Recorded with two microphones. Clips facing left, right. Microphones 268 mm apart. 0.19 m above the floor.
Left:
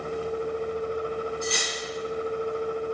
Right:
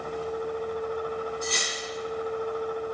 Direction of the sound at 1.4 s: 55° right (ahead or behind).